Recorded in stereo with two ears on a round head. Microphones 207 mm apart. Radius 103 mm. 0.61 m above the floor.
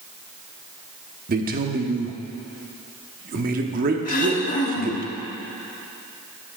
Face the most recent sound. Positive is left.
turn(degrees=35)  # may be behind; listen again after turning